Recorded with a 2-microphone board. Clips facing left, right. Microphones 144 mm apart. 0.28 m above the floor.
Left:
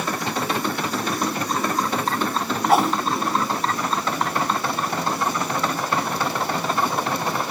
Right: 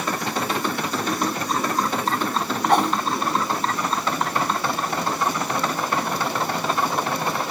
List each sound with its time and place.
2.7 s a whoosh: 5° left (ahead or behind)